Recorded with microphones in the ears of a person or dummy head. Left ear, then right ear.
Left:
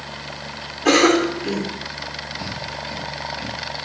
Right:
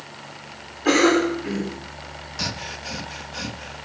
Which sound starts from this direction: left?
A cough, at 0.8 s.